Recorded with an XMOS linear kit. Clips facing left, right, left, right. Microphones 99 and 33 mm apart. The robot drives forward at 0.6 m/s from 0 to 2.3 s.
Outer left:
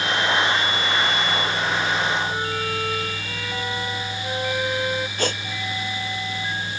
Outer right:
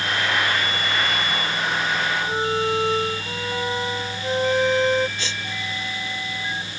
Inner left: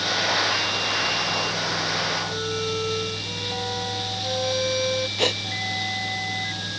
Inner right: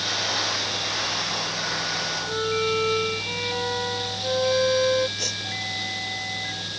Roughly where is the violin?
Right.